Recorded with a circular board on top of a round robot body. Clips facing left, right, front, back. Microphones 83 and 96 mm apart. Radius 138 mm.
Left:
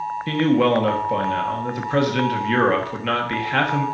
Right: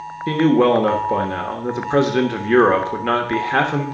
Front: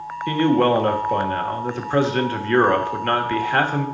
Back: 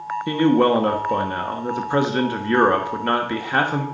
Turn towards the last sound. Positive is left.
turn(degrees=-125)